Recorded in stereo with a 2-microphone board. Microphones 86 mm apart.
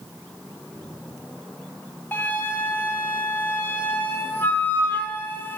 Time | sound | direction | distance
2.1 | a flute | 25° left (ahead or behind) | 2 m